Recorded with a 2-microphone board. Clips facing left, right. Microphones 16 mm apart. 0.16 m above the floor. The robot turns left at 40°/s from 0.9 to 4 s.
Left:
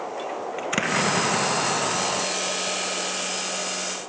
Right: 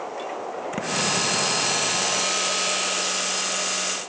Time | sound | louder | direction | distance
0.6 | an explosion | left 3 dB | 120° left | ?